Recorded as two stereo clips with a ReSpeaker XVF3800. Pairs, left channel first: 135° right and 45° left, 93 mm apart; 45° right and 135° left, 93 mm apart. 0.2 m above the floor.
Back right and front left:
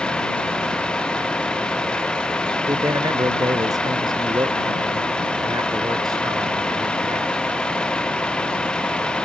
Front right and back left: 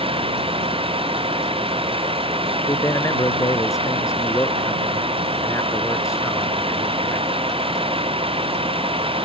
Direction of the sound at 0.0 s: 145° left.